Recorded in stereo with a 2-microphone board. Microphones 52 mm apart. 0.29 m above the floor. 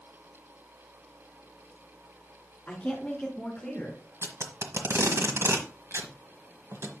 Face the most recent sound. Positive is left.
turn(degrees=-60)  # may be behind; listen again after turning